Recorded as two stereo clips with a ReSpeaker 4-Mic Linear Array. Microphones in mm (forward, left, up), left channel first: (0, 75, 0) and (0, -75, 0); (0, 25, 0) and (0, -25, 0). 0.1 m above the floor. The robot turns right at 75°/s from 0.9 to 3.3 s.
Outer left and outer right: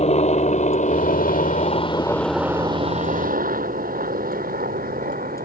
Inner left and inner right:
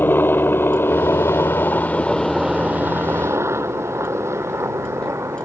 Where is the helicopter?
45° left (ahead or behind); by 5.5 s 70° right (ahead or behind).